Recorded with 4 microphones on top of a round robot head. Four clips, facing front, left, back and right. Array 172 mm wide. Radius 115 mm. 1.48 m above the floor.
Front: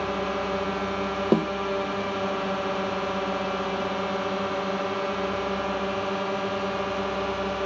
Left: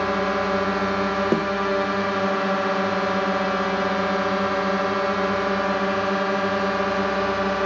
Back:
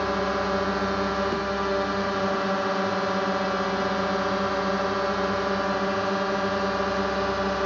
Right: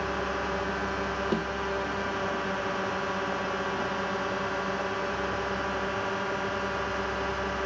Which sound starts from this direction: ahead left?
A snare drum, at 1.3 s.